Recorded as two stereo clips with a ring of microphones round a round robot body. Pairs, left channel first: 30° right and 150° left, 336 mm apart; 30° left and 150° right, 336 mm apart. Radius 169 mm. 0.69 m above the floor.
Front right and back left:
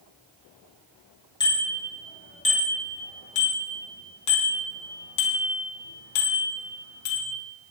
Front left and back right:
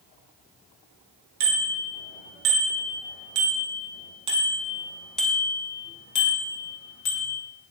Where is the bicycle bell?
110° right, 7.5 m; by 7.4 s 20° right, 5 m.